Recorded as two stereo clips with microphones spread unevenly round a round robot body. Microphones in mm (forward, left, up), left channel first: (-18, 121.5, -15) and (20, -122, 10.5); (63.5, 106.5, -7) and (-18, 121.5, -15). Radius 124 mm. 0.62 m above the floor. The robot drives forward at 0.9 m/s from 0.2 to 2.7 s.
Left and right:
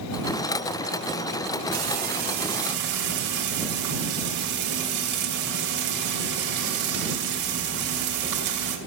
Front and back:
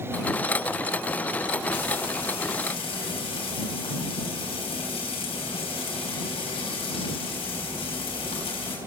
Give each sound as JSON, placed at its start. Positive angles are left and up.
{"t": 1.7, "sound": "frying", "azimuth_deg": -25, "distance_m": 4.0}